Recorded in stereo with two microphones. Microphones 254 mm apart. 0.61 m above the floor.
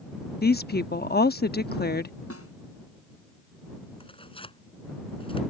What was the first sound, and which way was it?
A woman speaking, 40° left (ahead or behind).